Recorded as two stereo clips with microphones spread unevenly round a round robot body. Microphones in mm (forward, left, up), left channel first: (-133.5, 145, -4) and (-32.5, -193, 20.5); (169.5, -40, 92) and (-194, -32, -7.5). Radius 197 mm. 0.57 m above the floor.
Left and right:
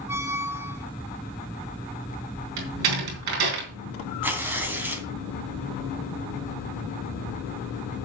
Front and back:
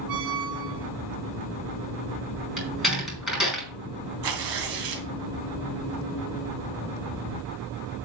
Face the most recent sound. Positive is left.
turn(degrees=-160)